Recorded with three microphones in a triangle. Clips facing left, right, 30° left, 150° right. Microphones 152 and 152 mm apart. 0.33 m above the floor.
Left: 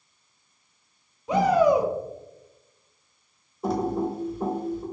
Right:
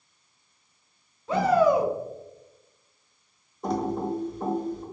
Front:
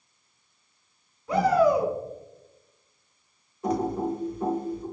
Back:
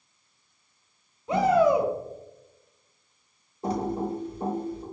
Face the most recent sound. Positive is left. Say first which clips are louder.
# left 2 dB, front 2 dB
turn(degrees=175)